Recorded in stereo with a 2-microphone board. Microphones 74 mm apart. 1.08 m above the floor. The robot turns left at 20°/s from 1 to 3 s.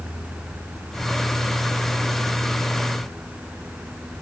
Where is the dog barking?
I don't hear a dog barking.